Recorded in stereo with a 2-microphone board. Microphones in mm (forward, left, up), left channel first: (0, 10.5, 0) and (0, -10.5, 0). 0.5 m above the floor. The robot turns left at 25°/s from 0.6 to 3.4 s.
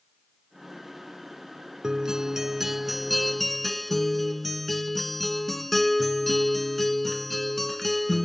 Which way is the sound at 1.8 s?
145° right.